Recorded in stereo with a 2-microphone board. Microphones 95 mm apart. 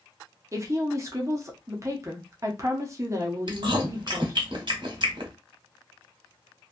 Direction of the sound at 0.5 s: 30° right (ahead or behind).